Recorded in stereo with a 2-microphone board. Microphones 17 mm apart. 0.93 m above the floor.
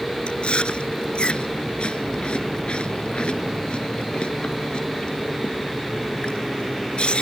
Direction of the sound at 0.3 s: 80° left.